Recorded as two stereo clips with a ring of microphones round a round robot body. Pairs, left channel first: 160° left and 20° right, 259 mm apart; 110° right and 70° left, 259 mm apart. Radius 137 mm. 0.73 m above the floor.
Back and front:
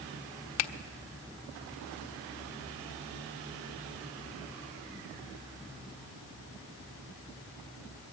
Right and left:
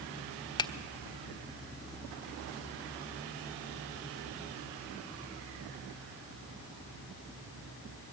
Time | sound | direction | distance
0.6 | a finger snap | 175° left | 1.1 m